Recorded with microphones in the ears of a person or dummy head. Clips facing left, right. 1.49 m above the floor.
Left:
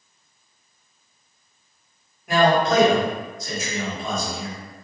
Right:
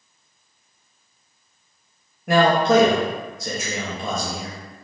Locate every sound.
2.3 s a man speaking: 45° right (ahead or behind), 1.4 m